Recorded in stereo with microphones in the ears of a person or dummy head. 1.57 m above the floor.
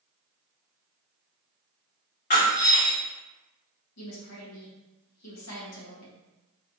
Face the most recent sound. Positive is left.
turn(degrees=80)